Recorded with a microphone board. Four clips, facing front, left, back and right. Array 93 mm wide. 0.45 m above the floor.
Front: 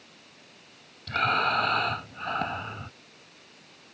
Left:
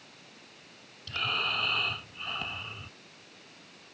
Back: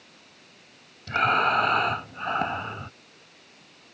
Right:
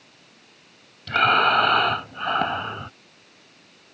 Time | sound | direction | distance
1.1 | breathing | 105° right | ?